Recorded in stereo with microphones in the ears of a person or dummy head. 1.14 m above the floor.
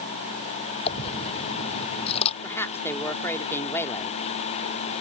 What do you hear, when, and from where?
0.9 s a dropped coin: 30° left (ahead or behind)
2.4 s a woman speaking: 15° left (ahead or behind)